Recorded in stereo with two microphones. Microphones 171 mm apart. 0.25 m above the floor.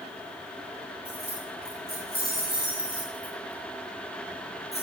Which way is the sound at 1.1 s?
65° left (ahead or behind).